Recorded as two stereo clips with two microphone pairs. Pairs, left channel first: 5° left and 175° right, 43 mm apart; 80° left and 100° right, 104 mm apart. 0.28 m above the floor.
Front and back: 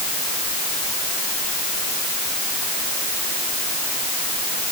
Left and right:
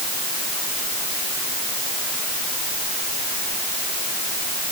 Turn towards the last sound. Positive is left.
No sound to turn to.